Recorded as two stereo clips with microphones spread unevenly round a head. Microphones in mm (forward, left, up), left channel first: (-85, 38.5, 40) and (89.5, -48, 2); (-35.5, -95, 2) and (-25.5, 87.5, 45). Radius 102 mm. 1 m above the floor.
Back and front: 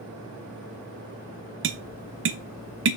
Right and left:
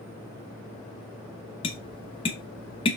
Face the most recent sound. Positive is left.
turn(degrees=-35)